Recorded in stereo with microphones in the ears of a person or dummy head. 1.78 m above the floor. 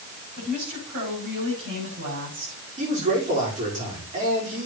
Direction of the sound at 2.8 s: 35° right (ahead or behind).